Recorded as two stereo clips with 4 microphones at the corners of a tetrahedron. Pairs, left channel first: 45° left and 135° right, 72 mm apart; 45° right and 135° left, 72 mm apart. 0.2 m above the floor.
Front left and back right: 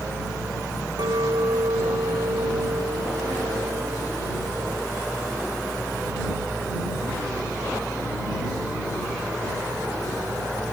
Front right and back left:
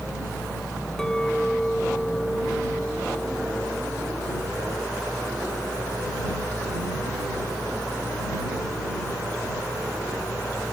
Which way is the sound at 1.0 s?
125° right.